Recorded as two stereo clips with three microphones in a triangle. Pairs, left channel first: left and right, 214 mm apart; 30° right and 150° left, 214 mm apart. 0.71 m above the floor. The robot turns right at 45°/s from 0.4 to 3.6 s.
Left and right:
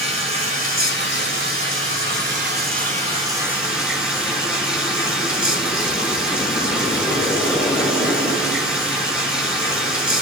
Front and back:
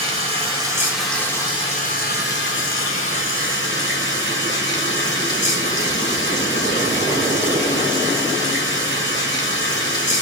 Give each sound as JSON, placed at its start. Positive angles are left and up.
{"t": 0.0, "sound": "running water", "azimuth_deg": -150, "distance_m": 1.7}